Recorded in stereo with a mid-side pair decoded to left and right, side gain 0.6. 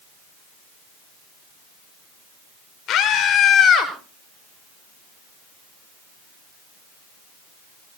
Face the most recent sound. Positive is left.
turn(degrees=40)